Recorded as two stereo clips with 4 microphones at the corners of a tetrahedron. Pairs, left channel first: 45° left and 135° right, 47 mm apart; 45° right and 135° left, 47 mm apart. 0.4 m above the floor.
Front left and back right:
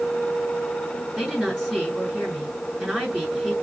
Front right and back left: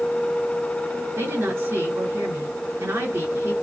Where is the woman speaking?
140° left, 5.5 m.